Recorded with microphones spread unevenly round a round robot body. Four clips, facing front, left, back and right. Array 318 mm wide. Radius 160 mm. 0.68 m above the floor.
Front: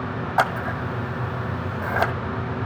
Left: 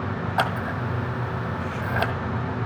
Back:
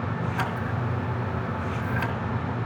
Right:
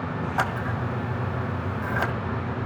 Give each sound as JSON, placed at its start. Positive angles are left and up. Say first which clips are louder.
{"t": 0.4, "sound": "scissors", "louder": "left 3 dB, front 6 dB", "azimuth_deg": 5, "distance_m": 1.4}